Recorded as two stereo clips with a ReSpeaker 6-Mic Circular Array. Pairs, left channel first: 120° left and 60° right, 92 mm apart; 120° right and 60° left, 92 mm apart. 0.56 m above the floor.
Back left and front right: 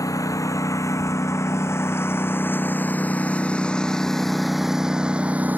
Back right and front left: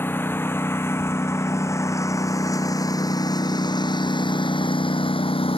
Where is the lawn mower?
175° left; by 5.6 s 130° right.